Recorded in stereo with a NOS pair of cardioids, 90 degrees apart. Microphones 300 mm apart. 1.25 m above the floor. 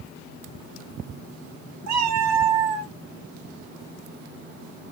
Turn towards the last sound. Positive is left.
turn(degrees=-60)